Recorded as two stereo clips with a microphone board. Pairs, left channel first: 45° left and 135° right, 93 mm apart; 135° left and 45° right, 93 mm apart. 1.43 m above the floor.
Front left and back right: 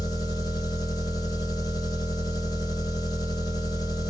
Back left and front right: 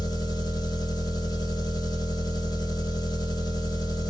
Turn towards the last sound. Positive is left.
turn(degrees=90)